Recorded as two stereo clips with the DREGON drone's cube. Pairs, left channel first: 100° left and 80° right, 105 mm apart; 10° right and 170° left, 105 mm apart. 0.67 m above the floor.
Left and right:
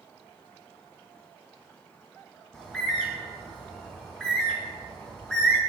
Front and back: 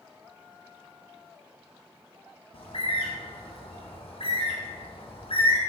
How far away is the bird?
About 2 m.